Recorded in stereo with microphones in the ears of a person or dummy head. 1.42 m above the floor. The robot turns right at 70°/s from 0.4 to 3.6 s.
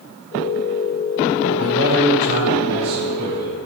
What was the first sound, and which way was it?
A man speaking, 155° right.